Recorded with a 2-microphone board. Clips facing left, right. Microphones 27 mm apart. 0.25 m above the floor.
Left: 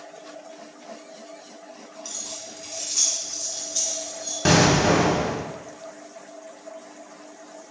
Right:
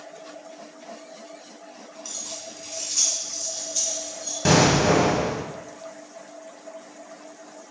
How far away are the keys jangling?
About 1.5 m.